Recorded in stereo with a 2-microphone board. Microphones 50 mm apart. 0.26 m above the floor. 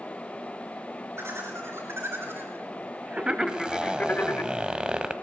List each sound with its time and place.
1.2 s laughter: 60° right (ahead or behind), 3.5 m; by 4.5 s 50° left (ahead or behind), 1.5 m
3.5 s a zipper: 15° right (ahead or behind), 1.0 m